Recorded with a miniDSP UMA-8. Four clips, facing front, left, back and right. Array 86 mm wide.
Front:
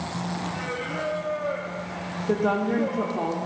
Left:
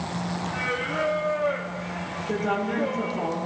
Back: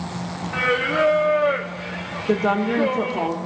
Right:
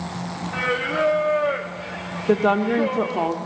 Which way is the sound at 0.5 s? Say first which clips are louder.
Right 7 dB, back 10 dB; 160° right.